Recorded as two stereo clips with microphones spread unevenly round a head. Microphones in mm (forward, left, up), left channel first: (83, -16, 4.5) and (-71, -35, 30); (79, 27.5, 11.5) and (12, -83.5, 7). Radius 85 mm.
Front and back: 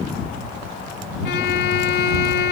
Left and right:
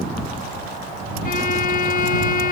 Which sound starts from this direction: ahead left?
A violin, at 1.2 s.